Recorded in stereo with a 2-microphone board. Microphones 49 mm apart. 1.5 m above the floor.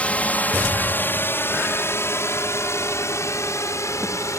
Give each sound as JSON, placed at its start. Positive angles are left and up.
{"t": 0.0, "sound": "a drone", "side_deg": 25}